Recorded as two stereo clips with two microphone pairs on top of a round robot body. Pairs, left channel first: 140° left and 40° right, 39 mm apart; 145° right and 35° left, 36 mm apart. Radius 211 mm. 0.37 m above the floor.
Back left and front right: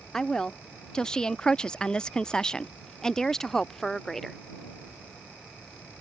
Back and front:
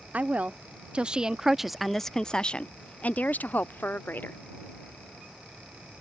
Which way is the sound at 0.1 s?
70° left.